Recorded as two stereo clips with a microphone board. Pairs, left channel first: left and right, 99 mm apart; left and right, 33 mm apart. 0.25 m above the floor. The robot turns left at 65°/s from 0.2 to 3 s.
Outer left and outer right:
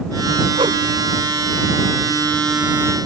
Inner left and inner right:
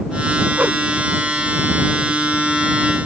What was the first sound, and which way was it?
A whoosh, 70° right (ahead or behind).